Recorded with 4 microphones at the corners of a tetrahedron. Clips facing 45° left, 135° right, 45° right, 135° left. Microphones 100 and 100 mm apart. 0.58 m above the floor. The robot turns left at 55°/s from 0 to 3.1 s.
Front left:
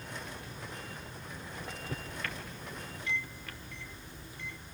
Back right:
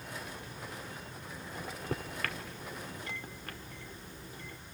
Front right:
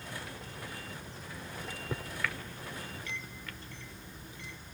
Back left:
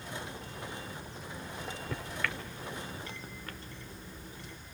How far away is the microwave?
About 1.1 m.